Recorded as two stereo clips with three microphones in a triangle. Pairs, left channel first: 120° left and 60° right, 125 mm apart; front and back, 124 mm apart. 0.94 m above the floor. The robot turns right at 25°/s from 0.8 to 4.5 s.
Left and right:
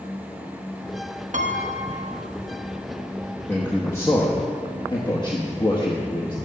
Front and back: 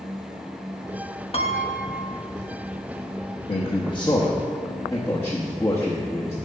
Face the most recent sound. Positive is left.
turn(degrees=65)